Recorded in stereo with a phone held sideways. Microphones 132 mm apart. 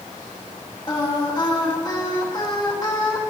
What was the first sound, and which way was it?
Singing, 30° left (ahead or behind).